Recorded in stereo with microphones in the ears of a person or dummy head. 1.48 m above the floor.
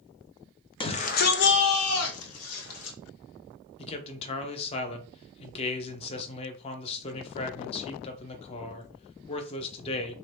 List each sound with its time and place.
0.8 s a shout: 25° left (ahead or behind), 0.5 m; by 3.0 s 75° left (ahead or behind), 1.3 m
3.8 s a man speaking: 30° left (ahead or behind), 0.6 m